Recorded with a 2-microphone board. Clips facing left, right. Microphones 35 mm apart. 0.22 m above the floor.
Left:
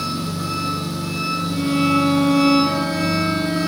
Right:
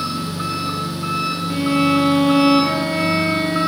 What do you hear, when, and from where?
0.0 s an engine running: 45° right (ahead or behind), 2.5 m
1.5 s a violin: 65° right (ahead or behind), 2.0 m